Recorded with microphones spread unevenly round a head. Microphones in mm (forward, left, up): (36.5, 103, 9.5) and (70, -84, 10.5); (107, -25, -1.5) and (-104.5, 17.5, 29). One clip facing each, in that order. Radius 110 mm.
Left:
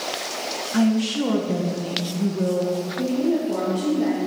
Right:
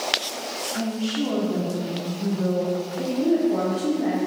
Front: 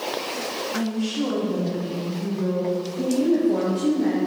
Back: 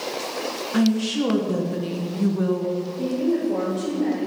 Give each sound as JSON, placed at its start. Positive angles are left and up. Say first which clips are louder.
{"t": 0.7, "sound": "a woman speaking", "louder": "left 7 dB, back 5 dB", "azimuth_deg": 125, "distance_m": 1.3}
{"t": 3.0, "sound": "a woman speaking", "louder": "right 1 dB, front 3 dB", "azimuth_deg": 65, "distance_m": 2.0}